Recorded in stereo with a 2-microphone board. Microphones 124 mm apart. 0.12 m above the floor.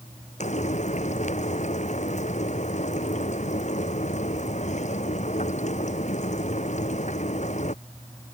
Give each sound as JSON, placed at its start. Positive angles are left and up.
{"t": 0.4, "sound": "frying", "side_deg": 65}